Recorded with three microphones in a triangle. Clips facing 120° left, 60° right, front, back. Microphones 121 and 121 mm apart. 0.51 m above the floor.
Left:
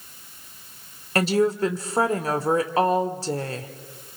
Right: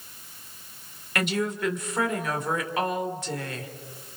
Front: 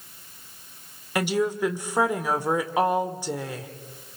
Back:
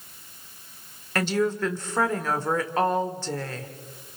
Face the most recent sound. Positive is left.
turn(degrees=75)